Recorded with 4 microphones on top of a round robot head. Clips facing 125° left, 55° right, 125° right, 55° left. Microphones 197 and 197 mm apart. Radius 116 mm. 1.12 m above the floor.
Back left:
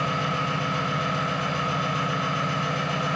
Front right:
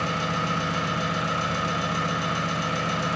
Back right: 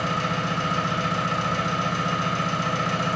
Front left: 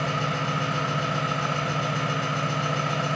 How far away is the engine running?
About 0.7 m.